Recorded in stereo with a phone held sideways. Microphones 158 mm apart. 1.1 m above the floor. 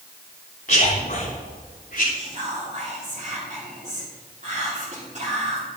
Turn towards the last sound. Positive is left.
turn(degrees=-50)  # may be behind; listen again after turning